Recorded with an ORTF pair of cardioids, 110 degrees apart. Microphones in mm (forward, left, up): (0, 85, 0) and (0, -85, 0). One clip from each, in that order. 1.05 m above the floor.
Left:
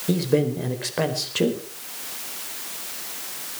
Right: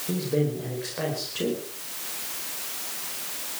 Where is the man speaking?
50° left, 4.5 m.